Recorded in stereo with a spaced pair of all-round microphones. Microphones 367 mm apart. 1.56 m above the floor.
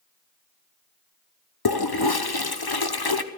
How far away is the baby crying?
No baby crying in this recording.